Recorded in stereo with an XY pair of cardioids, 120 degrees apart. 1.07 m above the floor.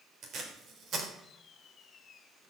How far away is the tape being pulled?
About 3 m.